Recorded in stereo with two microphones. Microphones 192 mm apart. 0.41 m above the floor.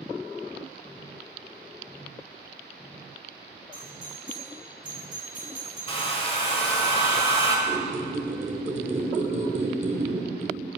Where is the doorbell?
40° right (ahead or behind), 2.5 m.